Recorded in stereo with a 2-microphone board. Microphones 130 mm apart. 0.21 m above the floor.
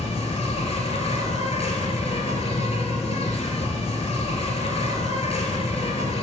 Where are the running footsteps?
No running footsteps in this recording.